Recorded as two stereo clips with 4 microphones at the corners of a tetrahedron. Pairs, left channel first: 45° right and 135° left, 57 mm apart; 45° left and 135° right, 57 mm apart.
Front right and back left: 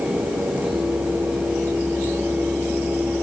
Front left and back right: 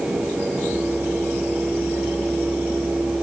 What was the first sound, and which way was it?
Only background noise.